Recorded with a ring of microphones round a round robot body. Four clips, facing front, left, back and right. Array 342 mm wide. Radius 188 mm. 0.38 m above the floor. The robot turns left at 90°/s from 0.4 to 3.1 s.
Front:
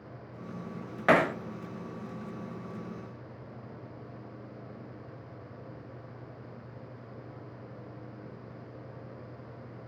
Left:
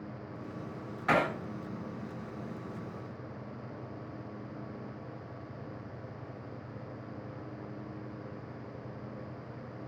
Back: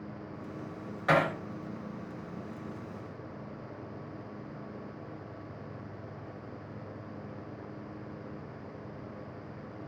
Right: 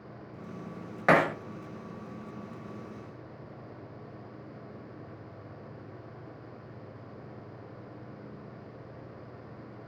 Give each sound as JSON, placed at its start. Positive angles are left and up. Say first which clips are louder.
{"t": 1.1, "sound": "hammering", "louder": "right 5 dB, front 3 dB", "azimuth_deg": -55, "distance_m": 0.8}